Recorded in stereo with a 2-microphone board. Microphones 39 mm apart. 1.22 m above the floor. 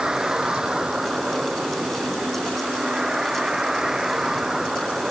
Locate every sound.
0.0 s a vehicle: 20° right (ahead or behind); by 5.1 s 15° right (ahead or behind)